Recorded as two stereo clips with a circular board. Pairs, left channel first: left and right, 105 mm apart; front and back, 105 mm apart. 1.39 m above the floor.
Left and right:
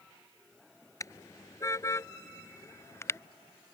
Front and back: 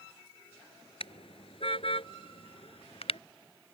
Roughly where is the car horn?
Ahead left.